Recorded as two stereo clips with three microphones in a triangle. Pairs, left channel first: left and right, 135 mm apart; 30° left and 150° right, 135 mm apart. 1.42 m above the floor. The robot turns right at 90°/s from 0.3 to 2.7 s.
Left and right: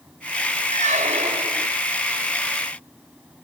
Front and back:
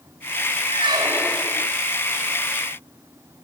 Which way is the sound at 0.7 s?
115° right.